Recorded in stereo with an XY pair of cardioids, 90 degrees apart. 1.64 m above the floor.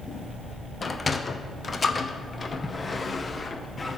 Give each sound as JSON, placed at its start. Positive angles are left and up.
{"t": 0.8, "sound": "a sliding door", "azimuth_deg": 30, "distance_m": 0.9}